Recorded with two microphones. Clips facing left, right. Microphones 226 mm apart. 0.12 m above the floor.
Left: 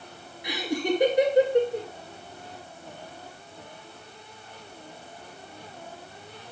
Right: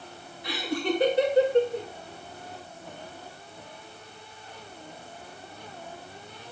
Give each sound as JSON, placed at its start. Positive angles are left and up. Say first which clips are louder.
{"t": 0.4, "sound": "laughter", "louder": "left 1 dB", "side_deg": 15, "distance_m": 1.9}